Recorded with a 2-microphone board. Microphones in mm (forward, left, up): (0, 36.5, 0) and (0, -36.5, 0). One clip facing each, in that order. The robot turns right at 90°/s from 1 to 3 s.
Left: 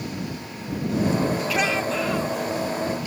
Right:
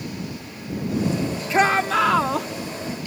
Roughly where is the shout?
Behind right.